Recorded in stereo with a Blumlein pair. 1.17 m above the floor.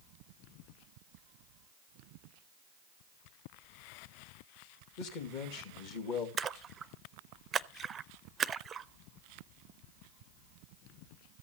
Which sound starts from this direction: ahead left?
A man speaking, at 5.0 s.